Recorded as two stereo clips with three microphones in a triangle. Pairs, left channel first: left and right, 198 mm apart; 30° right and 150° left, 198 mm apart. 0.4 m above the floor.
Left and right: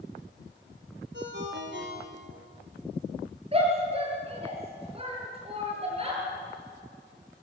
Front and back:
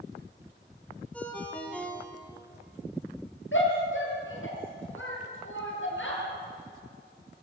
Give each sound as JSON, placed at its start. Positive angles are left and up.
{"t": 1.1, "sound": "a ringtone", "azimuth_deg": -115, "distance_m": 5.0}
{"t": 3.5, "sound": "a shout", "azimuth_deg": -30, "distance_m": 8.5}